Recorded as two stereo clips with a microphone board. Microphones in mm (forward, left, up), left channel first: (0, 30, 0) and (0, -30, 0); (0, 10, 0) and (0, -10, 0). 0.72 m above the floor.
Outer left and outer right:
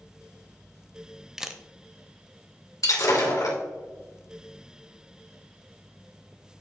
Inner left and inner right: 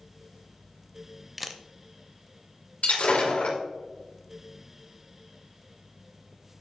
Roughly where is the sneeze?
I don't hear a sneeze.